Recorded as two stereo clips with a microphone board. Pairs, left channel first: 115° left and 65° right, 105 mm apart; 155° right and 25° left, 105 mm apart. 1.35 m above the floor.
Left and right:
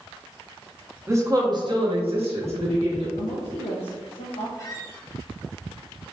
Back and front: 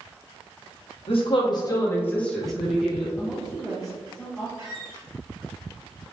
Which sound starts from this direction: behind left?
A woman speaking, at 3.2 s.